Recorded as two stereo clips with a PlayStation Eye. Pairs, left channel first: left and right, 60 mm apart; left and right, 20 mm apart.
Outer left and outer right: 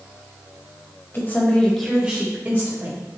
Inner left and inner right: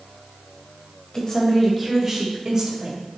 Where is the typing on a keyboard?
I don't hear typing on a keyboard.